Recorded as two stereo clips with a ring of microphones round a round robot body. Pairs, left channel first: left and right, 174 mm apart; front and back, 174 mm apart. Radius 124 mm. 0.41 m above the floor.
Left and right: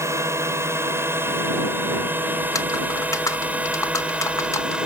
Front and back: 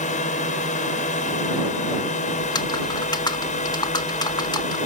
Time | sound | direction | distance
0.0 | a drone | 25° right | ?
2.4 | typing on a keyboard | 40° left | ?